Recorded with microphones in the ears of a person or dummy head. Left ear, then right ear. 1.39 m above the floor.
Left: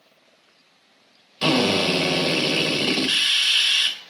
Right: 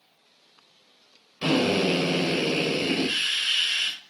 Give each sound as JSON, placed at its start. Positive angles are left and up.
{"t": 1.4, "sound": "a drill", "side_deg": 35, "distance_m": 2.5}